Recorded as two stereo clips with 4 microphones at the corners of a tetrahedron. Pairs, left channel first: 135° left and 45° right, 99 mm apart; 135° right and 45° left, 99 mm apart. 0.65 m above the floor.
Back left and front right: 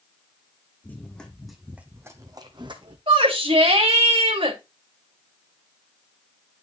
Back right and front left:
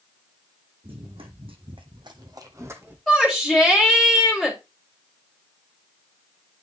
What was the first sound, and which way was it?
Running footsteps, 65° left.